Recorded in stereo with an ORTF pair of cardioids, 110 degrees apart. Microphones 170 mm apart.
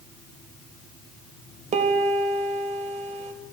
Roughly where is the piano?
Ahead right.